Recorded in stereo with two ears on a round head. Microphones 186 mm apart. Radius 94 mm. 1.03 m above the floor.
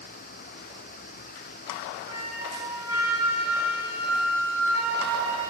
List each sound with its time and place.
2.1 s a flute: 15° right (ahead or behind), 5 m